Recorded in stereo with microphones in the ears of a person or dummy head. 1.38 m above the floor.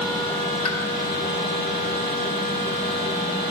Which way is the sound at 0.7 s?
35° left (ahead or behind).